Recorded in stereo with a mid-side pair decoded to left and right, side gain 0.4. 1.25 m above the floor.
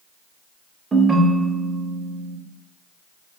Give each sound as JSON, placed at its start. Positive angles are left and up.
{"t": 0.9, "sound": "a ringtone", "azimuth_deg": -30, "distance_m": 0.6}